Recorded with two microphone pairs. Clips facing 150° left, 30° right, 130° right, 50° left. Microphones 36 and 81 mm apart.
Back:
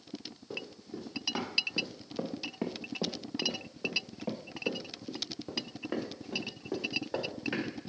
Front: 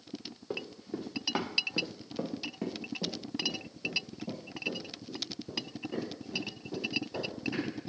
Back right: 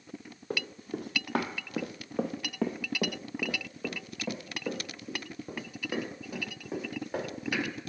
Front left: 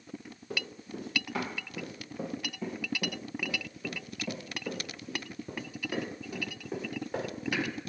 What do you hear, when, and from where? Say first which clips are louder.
0.5 s running footsteps: front 4 dB, back right 4 dB; 85° right, 1.9 m; by 7.7 s 150° left, 4 m